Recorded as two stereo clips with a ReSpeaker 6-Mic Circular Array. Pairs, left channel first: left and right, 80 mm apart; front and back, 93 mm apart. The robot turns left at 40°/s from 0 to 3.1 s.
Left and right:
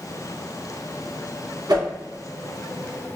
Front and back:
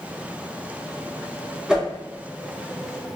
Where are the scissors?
No scissors in this recording.